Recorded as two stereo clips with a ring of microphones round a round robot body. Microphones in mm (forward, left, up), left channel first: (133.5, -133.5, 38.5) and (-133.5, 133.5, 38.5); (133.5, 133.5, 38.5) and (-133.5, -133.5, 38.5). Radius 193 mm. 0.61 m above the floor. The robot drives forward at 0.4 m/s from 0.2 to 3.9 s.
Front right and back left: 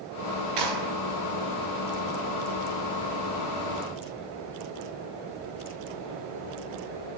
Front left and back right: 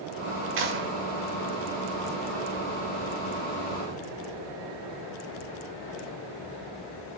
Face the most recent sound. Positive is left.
turn(degrees=165)